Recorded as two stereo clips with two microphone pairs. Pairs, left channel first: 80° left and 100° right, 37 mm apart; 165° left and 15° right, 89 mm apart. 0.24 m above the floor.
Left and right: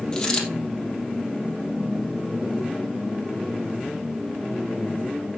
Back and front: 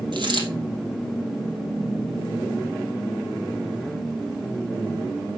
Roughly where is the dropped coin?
Ahead.